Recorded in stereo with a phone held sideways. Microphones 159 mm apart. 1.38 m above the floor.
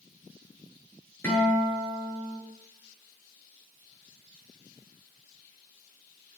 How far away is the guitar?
About 8.5 m.